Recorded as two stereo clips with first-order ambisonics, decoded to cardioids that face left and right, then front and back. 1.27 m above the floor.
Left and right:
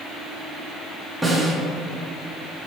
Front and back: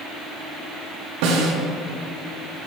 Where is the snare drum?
175° right, 1.2 m.